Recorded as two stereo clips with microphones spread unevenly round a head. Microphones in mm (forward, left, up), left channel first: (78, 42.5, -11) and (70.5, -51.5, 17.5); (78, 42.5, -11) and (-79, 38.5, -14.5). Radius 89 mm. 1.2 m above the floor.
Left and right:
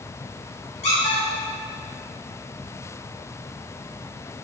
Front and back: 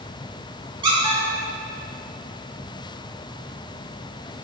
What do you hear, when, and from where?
0.8 s a squeak: 120° left, 2.5 m